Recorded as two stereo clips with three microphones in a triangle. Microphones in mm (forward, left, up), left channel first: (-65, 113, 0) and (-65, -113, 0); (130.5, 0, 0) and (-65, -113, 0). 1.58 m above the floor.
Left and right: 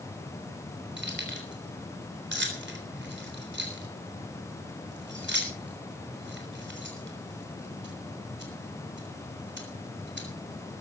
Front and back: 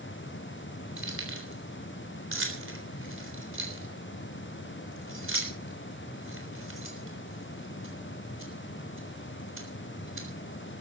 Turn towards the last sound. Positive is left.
turn(degrees=-125)